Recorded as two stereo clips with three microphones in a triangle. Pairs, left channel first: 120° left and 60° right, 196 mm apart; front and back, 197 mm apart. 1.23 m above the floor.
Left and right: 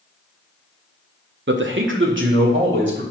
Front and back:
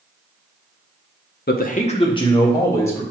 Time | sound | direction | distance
1.5 | a man speaking | 35° right | 0.6 m